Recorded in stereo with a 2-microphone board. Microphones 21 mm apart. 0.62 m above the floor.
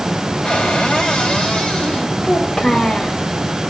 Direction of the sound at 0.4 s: 60° left (ahead or behind).